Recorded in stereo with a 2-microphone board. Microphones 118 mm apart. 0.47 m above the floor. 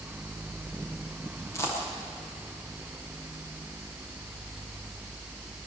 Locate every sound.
1.5 s a dropped coin: 25° left (ahead or behind), 9.5 m